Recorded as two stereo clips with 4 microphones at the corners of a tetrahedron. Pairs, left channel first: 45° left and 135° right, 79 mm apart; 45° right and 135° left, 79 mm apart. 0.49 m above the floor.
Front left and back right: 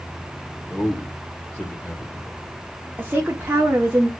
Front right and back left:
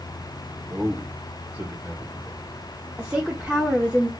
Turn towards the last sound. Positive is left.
turn(degrees=-165)